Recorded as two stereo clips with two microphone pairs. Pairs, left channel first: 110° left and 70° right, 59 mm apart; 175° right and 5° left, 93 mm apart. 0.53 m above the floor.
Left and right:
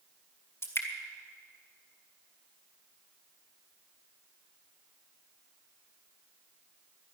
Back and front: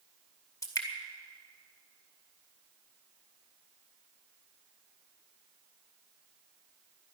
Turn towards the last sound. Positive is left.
turn(degrees=135)